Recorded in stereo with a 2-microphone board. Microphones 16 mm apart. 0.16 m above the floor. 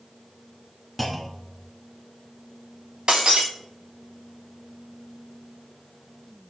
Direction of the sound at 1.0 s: 5° left (ahead or behind).